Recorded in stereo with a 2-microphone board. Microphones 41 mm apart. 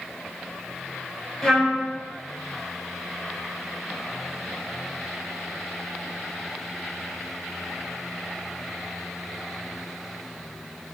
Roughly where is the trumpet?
Centre.